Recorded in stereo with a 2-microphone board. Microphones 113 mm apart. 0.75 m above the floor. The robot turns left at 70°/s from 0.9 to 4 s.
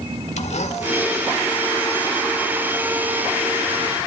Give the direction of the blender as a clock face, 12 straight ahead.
9 o'clock.